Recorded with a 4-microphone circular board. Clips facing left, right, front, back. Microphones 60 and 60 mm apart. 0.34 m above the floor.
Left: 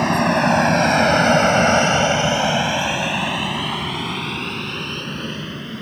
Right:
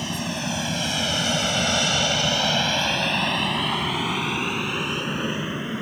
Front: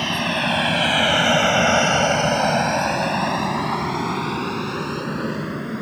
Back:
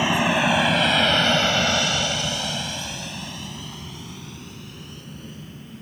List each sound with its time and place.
0.0 s an aircraft: 105° left; by 5.8 s 15° right